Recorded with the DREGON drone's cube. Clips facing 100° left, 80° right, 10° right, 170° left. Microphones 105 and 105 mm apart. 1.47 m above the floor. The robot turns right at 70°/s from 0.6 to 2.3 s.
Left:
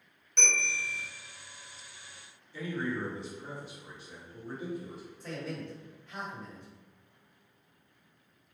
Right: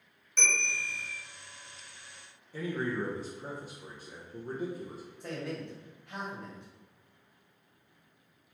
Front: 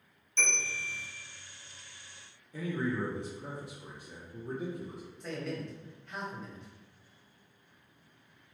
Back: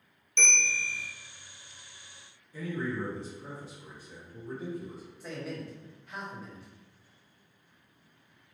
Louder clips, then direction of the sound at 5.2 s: Right 1 dB, front 1 dB; 105° right.